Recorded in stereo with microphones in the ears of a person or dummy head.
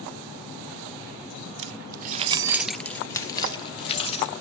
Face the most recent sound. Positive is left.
turn(degrees=35)  # may be behind; listen again after turning